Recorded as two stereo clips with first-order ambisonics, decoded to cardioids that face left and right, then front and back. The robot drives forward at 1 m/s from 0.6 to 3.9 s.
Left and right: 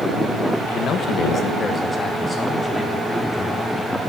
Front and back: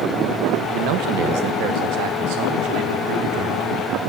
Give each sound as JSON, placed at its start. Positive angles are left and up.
{"t": 0.7, "sound": "a man speaking", "azimuth_deg": 150, "distance_m": 1.2}